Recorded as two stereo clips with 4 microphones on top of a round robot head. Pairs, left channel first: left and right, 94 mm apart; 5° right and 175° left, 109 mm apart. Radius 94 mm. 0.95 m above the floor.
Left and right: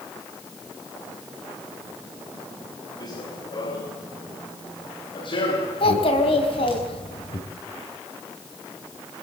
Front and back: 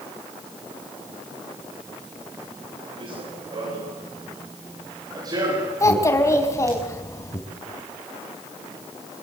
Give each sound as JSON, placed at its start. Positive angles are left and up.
{"t": 3.0, "sound": "running footsteps", "azimuth_deg": 135, "distance_m": 7.5}
{"t": 5.8, "sound": "a child speaking", "azimuth_deg": 55, "distance_m": 4.5}